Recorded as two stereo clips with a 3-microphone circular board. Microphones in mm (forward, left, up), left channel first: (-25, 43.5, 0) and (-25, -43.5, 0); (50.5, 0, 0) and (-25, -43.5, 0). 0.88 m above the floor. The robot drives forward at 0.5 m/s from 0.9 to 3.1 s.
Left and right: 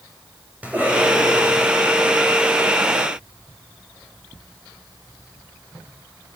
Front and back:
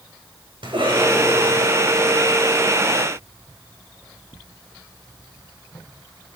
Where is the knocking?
No knocking in this recording.